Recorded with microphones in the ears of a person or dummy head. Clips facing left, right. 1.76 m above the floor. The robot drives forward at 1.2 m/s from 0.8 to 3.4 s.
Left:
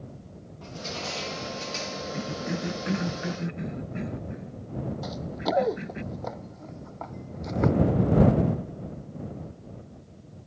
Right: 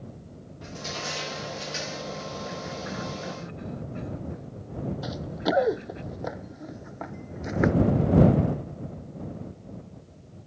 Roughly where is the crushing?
Right.